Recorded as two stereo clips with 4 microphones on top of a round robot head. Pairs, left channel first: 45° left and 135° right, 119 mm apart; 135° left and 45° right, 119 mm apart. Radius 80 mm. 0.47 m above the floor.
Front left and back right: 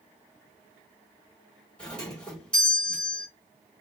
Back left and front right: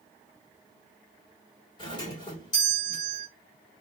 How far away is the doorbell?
About 2 m.